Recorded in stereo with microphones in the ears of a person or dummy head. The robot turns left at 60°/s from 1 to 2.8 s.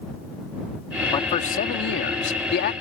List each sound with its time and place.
1.1 s a man speaking: 150° left; by 2.7 s 55° left